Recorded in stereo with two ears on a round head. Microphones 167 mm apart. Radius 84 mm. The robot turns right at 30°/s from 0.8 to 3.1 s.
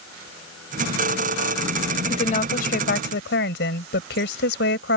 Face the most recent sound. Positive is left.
turn(degrees=60)  # may be behind; listen again after turning